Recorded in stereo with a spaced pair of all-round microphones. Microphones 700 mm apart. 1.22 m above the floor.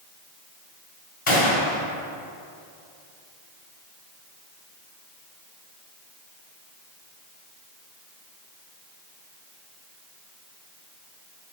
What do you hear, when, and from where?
1.3 s a gunshot: 45° left (ahead or behind), 1.3 m